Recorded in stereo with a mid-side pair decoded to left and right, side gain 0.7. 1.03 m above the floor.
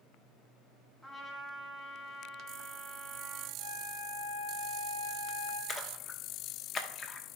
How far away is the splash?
About 1.0 m.